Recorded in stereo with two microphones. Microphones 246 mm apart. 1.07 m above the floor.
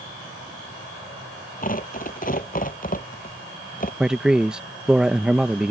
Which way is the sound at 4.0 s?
5° right (ahead or behind).